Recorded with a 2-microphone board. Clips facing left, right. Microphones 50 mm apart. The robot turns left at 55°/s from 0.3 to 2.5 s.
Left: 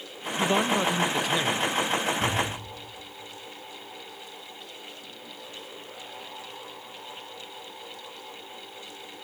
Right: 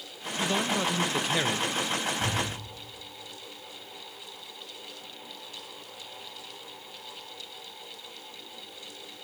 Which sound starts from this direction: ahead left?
A man speaking, at 0.4 s.